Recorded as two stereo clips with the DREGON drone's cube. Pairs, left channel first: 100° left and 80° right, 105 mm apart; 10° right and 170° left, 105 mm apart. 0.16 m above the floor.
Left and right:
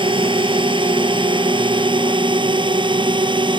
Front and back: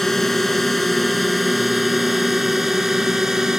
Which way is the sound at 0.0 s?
95° right.